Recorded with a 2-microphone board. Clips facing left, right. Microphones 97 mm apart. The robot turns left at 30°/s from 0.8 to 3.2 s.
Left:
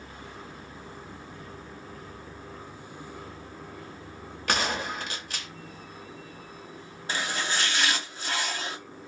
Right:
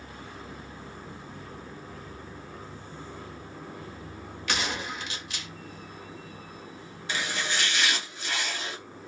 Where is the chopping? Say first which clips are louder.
Left 1 dB; 40° left (ahead or behind), 1.1 m.